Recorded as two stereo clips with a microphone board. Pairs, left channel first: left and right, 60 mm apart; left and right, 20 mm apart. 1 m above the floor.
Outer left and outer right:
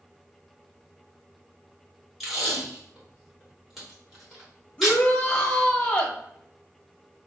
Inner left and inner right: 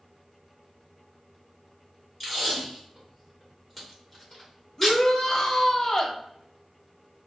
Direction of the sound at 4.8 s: 20° left (ahead or behind).